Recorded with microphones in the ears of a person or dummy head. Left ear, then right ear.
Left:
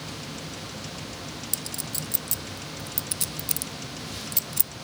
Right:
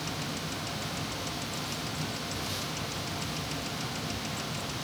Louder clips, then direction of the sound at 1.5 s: Even; 60° left (ahead or behind).